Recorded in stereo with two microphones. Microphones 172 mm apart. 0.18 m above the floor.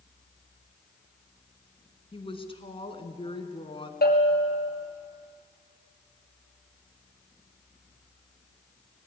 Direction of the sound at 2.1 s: 30° left (ahead or behind).